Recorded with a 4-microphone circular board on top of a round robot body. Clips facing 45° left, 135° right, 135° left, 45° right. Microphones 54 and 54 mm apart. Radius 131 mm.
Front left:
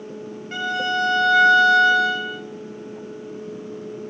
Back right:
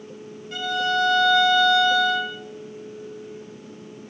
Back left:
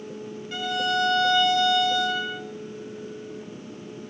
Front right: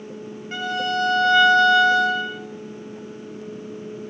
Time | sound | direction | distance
0.5 | a violin | straight ahead | 2.5 m